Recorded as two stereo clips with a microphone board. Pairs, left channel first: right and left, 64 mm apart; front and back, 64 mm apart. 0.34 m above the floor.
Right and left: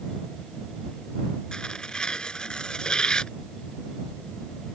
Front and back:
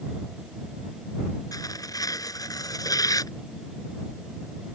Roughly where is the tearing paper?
Ahead.